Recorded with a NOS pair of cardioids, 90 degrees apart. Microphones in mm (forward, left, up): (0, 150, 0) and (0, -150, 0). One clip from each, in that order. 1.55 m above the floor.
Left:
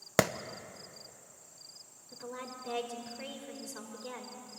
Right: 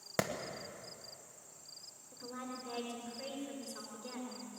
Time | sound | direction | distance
0.2 | a clap | 40° left | 1.1 m
2.1 | a woman speaking | 35° left | 5 m